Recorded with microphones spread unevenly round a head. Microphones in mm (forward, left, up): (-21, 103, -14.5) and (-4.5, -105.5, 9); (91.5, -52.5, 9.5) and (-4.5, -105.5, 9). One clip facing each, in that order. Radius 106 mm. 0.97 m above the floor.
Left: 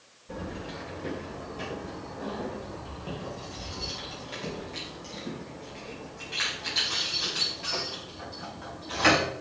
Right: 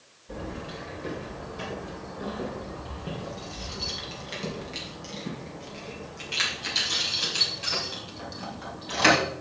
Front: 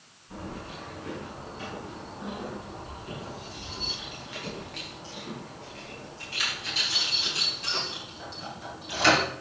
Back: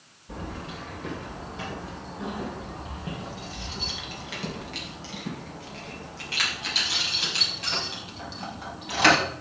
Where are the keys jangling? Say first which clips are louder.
Right 1 dB, back 2 dB; 175° right, 3 m; by 9.2 s 125° right, 5.5 m.